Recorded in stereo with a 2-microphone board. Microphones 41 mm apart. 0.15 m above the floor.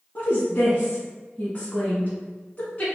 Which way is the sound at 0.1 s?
30° left (ahead or behind).